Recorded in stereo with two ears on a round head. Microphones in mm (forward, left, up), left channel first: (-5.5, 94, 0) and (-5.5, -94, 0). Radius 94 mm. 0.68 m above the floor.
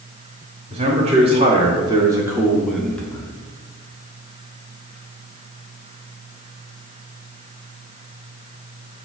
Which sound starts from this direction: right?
A man speaking, at 0.7 s.